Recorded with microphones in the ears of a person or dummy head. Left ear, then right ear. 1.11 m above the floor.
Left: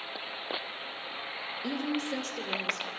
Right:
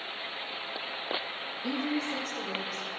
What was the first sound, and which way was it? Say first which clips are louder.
A woman speaking: right 2 dB; 45° left (ahead or behind).